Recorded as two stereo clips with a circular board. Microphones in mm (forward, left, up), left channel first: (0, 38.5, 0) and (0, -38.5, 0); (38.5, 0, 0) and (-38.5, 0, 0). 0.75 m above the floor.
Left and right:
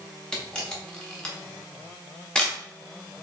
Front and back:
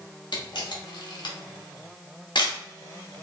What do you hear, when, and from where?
0.3 s a camera shutter: 10° left, 0.9 m